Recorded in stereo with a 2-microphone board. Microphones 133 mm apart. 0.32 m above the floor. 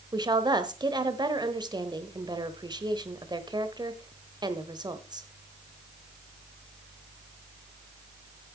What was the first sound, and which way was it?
A woman speaking, 35° right (ahead or behind).